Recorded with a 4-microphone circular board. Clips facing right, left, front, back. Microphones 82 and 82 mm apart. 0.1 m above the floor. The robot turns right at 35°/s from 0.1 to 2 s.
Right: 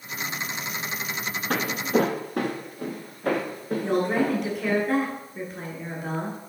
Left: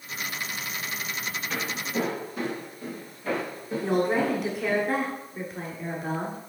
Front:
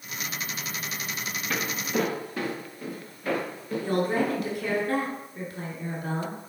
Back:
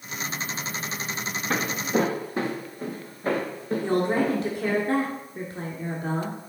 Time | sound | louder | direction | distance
1.5 | footsteps | right 8 dB, back 4 dB | 125° right | 0.6 m
3.8 | a woman speaking | even, back 2 dB | 175° left | 1.4 m